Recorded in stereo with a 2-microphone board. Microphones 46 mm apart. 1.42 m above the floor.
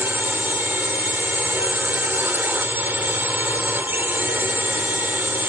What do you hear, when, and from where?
0.0 s a drone: 45° right (ahead or behind)